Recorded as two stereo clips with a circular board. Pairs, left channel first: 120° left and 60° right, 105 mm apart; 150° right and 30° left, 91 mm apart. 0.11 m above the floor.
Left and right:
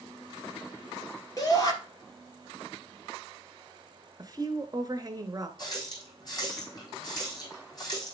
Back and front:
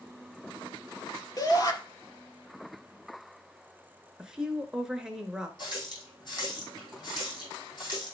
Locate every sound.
1.4 s a shout: 170° left, 2 m
4.2 s a woman speaking: 45° right, 1.3 m
5.6 s a running tap: 170° left, 3.5 m